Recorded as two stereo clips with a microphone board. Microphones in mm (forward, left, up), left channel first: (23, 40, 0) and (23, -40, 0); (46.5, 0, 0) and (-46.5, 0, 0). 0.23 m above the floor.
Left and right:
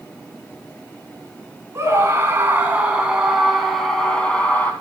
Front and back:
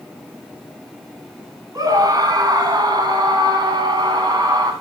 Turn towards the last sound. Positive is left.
turn(degrees=155)